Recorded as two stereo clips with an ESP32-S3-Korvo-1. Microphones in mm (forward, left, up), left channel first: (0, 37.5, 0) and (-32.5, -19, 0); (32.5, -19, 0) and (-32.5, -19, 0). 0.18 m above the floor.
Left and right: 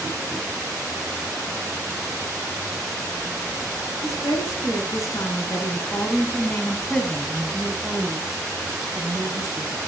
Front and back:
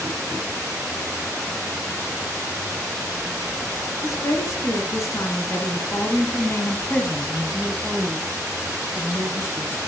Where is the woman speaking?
30° left, 3 m; by 9.8 s 135° right, 2 m.